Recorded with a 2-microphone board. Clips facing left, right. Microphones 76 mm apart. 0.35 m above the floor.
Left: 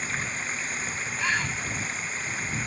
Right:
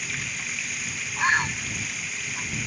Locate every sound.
0.0 s running water: 30° left (ahead or behind)
1.2 s a bird: 30° right (ahead or behind)